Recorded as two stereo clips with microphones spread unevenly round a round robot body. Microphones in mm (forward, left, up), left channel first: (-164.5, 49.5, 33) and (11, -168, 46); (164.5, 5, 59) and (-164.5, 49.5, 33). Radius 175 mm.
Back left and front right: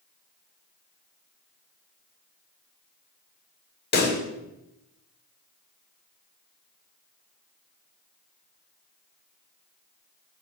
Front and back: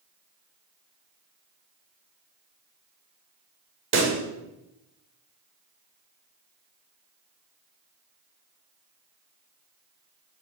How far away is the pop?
About 1.2 m.